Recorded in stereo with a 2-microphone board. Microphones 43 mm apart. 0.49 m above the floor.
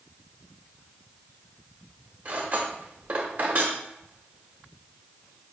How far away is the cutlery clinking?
About 0.8 m.